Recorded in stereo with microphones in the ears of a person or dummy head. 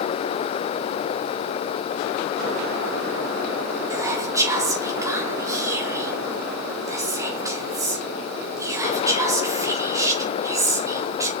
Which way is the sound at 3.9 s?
15° right (ahead or behind).